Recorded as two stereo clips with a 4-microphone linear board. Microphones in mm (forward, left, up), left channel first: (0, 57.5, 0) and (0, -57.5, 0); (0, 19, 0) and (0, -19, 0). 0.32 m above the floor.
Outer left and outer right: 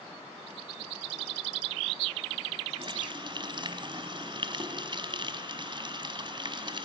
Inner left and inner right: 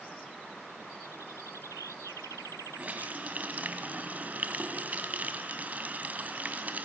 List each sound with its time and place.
2.8 s a running tap: 40° right (ahead or behind), 1.8 m